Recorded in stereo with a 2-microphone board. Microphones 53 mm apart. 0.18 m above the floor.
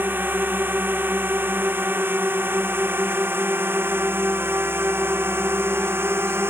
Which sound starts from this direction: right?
A drone, at 0.0 s.